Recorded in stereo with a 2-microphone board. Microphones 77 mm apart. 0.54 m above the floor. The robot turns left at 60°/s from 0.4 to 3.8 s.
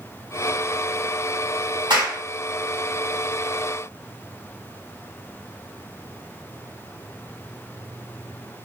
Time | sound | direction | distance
1.9 | a clap | 70° right (ahead or behind) | 2.5 m